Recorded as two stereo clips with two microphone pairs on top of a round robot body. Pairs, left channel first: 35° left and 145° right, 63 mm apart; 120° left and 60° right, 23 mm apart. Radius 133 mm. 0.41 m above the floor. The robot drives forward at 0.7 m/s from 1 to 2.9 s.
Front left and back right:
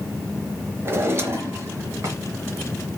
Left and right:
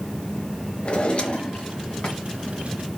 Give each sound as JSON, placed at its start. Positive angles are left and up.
{"t": 0.8, "sound": "a drawer", "azimuth_deg": 160, "distance_m": 1.0}